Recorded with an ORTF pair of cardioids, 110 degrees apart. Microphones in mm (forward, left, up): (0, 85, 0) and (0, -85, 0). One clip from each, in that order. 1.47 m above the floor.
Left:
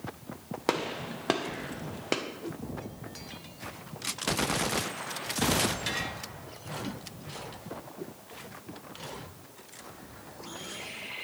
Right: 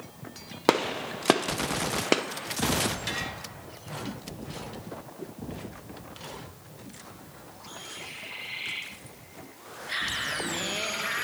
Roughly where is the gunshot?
Ahead right.